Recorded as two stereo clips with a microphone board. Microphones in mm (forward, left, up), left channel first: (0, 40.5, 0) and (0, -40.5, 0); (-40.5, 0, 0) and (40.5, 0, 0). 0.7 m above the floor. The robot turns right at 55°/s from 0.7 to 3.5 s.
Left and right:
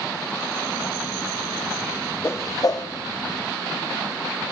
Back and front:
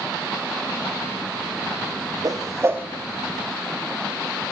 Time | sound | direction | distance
2.2 | a whoosh | 30° left | 0.5 m